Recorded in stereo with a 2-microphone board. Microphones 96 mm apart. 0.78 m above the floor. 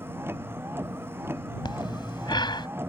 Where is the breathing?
50° left (ahead or behind).